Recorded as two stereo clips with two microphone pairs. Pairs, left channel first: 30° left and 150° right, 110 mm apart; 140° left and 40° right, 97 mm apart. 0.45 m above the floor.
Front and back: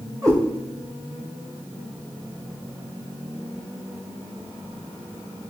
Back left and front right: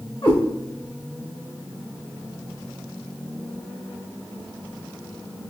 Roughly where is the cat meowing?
Behind left.